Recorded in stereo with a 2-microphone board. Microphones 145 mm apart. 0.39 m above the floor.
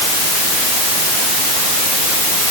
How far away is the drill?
I don't hear a drill.